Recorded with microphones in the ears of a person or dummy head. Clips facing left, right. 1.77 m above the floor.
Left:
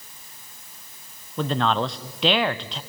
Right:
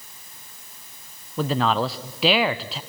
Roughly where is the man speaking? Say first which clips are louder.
Right 1 dB; centre.